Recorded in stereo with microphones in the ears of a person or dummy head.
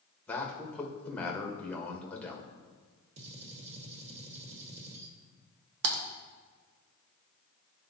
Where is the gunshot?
30° right (ahead or behind), 1.3 m.